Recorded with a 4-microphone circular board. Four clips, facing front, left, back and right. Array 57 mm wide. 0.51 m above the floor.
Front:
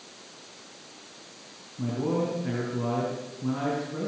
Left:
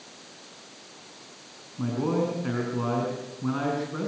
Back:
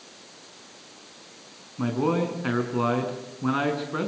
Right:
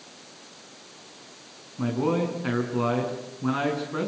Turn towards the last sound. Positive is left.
turn(degrees=-165)